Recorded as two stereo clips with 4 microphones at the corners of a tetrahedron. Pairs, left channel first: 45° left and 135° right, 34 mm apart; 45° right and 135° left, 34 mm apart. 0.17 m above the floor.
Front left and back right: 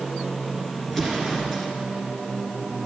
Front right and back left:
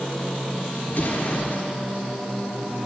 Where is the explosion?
40° right, 1.5 m.